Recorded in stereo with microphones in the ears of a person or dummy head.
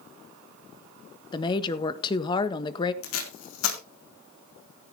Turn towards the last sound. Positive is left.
turn(degrees=85)